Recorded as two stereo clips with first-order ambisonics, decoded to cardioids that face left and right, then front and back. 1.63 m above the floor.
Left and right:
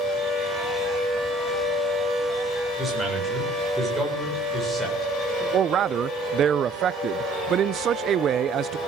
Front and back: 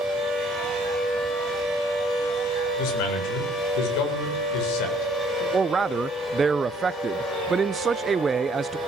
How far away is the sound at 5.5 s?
About 0.5 m.